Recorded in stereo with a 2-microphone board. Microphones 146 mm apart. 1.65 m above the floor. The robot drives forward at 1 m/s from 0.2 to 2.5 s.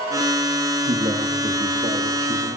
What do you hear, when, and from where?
0.9 s a man speaking: 70° right (ahead or behind), 3 m; by 2.6 s 50° right (ahead or behind), 4 m